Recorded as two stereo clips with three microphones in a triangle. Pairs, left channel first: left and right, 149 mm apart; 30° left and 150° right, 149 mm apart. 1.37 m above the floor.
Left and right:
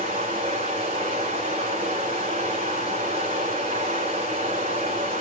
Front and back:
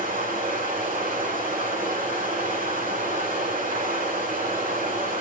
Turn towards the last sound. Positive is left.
turn(degrees=-135)